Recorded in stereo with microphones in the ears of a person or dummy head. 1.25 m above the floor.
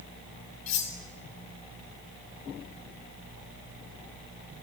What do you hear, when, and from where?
0.7 s cutlery clinking: 35° left (ahead or behind), 0.7 m